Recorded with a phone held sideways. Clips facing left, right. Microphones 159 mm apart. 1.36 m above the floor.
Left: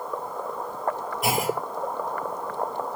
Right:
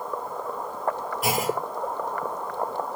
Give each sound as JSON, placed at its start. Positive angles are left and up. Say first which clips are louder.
{"t": 1.2, "sound": "a clunk", "louder": "even", "side_deg": 0, "distance_m": 1.3}